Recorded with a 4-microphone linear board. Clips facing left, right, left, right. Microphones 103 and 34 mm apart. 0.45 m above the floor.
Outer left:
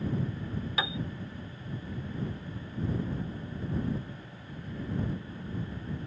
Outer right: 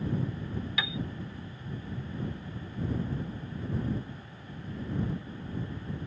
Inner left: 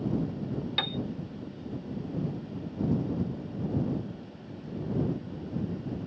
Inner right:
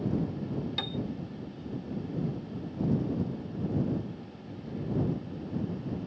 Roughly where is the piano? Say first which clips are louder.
Outer left 4 dB, inner left 7 dB; left.